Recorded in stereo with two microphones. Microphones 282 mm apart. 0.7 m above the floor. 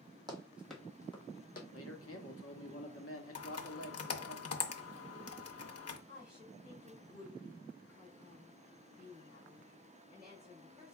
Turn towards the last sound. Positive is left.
turn(degrees=-5)  # may be behind; listen again after turning